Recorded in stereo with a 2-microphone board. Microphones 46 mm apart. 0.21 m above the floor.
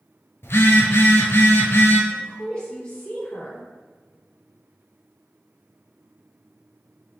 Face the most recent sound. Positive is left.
turn(degrees=20)  # may be behind; listen again after turning